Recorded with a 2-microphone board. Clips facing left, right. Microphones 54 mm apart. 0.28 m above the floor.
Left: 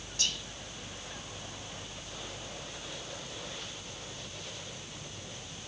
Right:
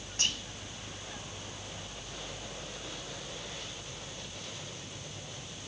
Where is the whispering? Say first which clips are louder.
Right 2 dB; 35° right (ahead or behind), 2.5 m.